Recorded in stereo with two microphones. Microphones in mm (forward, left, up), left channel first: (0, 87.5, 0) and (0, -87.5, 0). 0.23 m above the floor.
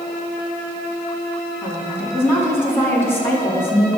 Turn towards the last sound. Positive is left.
turn(degrees=15)  # may be behind; listen again after turning